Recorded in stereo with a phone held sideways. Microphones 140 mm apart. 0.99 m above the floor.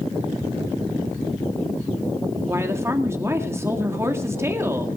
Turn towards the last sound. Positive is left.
turn(degrees=-20)  # may be behind; listen again after turning